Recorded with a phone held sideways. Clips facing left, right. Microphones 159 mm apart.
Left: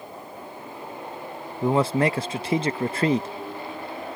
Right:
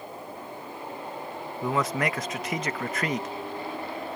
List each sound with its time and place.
1.6 s a man speaking: 30° left (ahead or behind)